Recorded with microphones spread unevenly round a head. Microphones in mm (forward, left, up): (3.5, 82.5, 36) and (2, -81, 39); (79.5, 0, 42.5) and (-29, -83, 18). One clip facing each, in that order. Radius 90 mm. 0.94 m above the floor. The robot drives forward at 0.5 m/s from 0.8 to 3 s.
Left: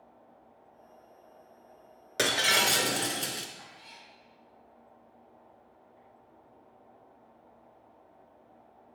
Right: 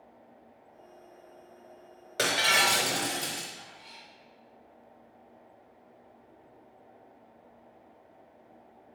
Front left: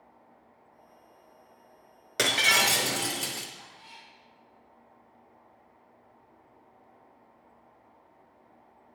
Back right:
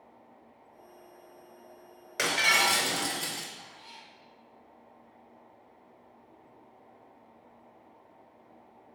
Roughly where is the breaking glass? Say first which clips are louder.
Even, front left 1 dB; ahead left.